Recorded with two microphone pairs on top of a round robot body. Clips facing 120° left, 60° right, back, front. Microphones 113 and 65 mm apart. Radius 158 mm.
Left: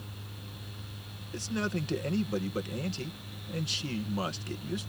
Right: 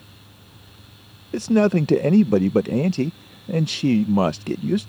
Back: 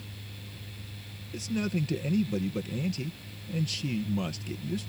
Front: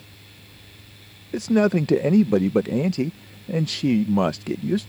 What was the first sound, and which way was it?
A man speaking, 35° right.